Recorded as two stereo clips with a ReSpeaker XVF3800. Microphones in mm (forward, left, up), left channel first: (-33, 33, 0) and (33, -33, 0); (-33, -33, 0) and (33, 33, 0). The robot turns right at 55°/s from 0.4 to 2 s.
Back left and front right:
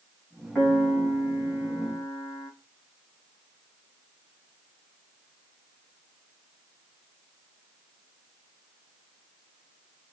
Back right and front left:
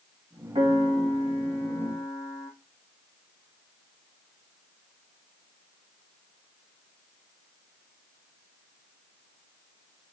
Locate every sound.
0.6 s a piano: 45° left, 2 m; by 2.5 s 120° left, 2 m